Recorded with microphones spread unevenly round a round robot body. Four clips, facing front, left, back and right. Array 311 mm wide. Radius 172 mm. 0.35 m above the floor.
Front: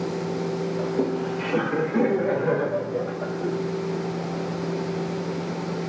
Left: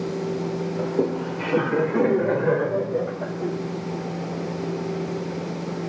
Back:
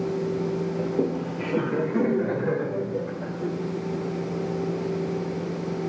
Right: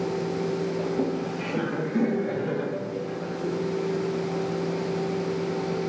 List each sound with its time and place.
0.8 s laughter: 125° left, 1.3 m; by 3.5 s 60° left, 2.0 m